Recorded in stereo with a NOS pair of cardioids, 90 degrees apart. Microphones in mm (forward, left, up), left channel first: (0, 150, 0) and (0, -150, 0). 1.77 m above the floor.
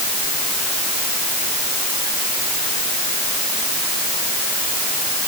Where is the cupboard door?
I don't hear a cupboard door.